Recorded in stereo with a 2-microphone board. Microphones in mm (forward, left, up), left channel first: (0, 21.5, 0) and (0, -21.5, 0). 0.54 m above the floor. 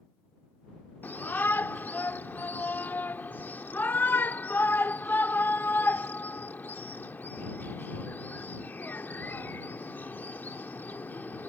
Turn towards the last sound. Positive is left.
turn(degrees=50)  # may be behind; listen again after turning